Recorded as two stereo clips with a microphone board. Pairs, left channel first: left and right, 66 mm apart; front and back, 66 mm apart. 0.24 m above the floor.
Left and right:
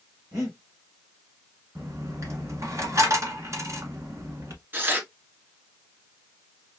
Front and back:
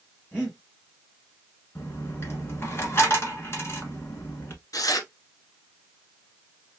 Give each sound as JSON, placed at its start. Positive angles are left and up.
{"t": 0.3, "sound": "breathing", "azimuth_deg": -60, "distance_m": 3.5}
{"t": 1.8, "sound": "a dropped coin", "azimuth_deg": -50, "distance_m": 1.2}
{"t": 4.7, "sound": "tearing paper", "azimuth_deg": -30, "distance_m": 0.9}